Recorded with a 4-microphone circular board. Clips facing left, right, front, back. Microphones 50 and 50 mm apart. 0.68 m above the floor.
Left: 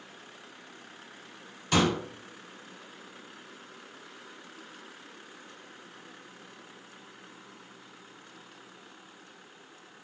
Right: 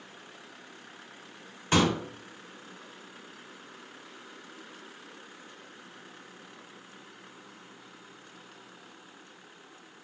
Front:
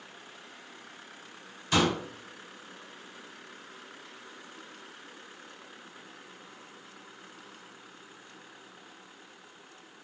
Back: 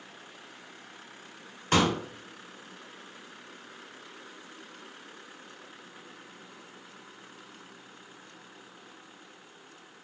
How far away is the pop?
About 1.5 m.